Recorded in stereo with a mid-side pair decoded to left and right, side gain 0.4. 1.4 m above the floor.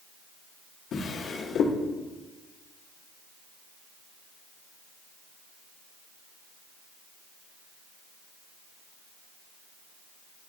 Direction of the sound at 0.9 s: 70° left.